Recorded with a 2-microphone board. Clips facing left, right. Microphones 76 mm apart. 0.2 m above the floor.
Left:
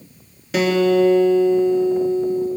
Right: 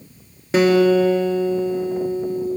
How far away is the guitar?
About 3 m.